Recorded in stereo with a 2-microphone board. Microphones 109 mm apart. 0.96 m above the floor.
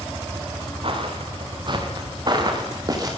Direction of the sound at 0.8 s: 55° right (ahead or behind).